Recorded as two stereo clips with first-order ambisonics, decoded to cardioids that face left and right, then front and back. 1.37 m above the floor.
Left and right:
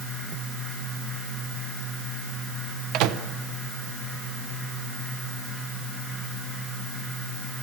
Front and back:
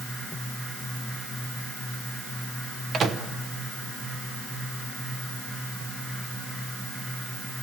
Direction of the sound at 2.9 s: 115° right.